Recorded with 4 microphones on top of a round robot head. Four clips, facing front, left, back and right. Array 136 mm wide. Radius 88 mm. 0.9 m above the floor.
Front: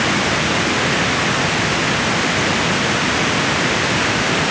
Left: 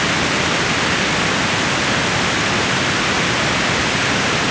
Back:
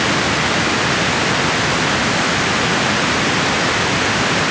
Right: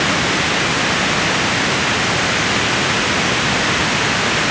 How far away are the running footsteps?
No running footsteps in this recording.